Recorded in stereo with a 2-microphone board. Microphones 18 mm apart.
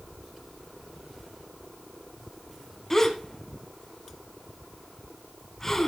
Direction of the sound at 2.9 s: 15° left (ahead or behind).